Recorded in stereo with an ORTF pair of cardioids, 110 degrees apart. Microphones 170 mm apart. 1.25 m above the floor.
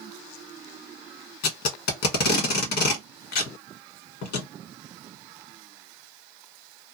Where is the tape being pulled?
70° left, 1.2 m.